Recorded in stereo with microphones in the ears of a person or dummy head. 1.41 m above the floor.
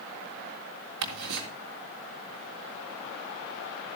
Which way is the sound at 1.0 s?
65° right (ahead or behind).